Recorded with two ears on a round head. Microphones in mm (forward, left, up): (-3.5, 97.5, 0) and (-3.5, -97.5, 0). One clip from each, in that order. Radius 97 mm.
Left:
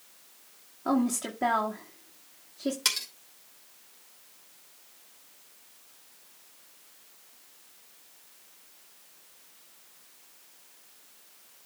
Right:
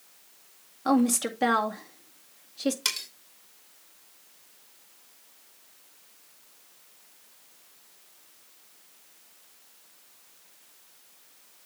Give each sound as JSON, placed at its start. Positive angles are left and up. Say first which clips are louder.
{"t": 0.8, "sound": "a woman speaking", "louder": "right 4 dB", "side_deg": -85, "distance_m": 2.0}
{"t": 2.9, "sound": "cutlery clinking", "louder": "left 5 dB", "side_deg": 0, "distance_m": 2.5}